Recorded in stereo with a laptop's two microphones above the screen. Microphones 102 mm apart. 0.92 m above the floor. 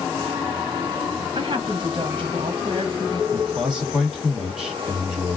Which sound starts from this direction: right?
A woman speaking, at 1.4 s.